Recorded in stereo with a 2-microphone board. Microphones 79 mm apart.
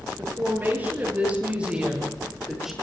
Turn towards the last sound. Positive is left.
turn(degrees=-5)  # may be behind; listen again after turning